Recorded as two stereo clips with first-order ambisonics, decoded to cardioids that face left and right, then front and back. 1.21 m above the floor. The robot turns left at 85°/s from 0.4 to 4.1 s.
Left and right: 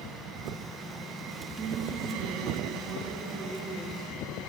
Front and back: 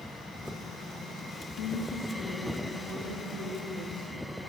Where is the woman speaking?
15° right, 2.5 m; by 4.4 s 130° left, 2.5 m.